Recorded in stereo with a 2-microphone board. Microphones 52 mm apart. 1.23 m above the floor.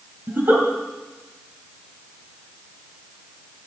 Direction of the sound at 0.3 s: 40° right (ahead or behind).